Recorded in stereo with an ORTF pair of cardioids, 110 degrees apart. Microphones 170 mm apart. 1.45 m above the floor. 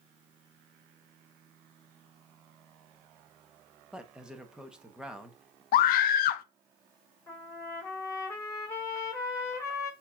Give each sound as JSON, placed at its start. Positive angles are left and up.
{"t": 3.9, "sound": "a man speaking", "azimuth_deg": -5, "distance_m": 1.0}
{"t": 5.7, "sound": "a scream", "azimuth_deg": 65, "distance_m": 0.5}
{"t": 7.3, "sound": "a trumpet", "azimuth_deg": 20, "distance_m": 2.5}